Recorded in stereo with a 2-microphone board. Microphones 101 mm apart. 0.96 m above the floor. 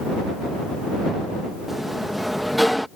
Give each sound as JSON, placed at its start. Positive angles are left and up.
{"t": 1.7, "sound": "a sliding door", "side_deg": 0}